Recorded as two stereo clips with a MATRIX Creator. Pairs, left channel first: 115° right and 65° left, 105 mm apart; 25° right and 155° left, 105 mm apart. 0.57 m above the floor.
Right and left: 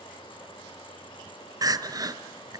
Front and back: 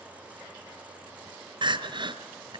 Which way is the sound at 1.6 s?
120° left.